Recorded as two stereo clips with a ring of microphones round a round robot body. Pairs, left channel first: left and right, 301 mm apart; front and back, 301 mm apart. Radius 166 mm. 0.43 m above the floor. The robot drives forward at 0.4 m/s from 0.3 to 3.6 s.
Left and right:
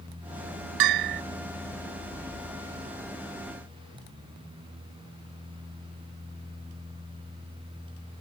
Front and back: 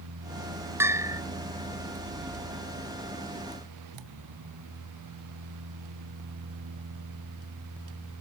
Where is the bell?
95° right; by 1.2 s 100° right.